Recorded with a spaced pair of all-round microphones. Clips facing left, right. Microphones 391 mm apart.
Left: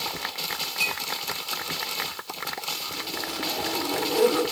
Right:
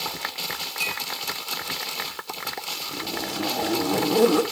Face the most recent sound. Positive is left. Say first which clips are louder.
# right 5 dB
turn(degrees=-60)  # may be behind; listen again after turning